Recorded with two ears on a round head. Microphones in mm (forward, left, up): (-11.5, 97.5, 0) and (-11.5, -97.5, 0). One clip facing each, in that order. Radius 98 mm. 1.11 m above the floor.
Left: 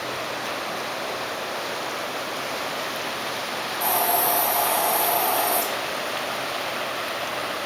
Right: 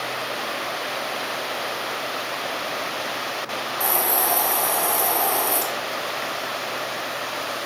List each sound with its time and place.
3.8 s a hiss: 40° right (ahead or behind), 2 m